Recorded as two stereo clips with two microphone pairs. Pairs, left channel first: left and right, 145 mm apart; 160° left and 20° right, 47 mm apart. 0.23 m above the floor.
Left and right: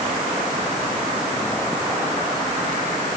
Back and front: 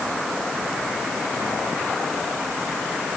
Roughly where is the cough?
No cough in this recording.